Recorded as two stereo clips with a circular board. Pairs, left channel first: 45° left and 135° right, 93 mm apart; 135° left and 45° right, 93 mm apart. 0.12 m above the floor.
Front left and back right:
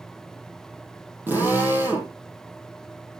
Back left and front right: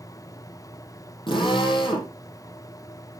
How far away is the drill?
About 5 m.